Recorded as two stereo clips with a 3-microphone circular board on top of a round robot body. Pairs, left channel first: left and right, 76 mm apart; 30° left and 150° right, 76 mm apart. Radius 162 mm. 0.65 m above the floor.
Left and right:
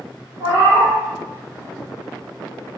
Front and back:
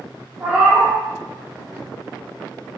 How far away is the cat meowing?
About 1.3 m.